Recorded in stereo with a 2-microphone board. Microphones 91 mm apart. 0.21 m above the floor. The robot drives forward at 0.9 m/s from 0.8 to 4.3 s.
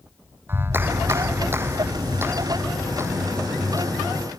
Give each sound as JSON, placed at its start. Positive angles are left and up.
{"t": 0.5, "sound": "a clap", "side_deg": -25}